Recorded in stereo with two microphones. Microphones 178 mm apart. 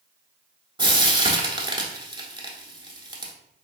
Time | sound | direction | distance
0.8 | frying | 25° right (ahead or behind) | 0.8 m